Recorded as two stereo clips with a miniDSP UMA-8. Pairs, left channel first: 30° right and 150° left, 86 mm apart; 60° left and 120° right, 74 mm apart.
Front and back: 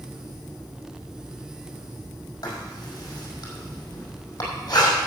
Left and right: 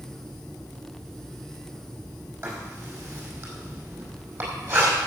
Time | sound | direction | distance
2.4 | writing | 70° right | 4.5 m